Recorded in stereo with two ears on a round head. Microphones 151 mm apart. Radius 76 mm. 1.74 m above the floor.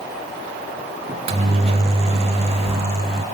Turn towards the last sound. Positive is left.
turn(degrees=-35)  # may be behind; listen again after turning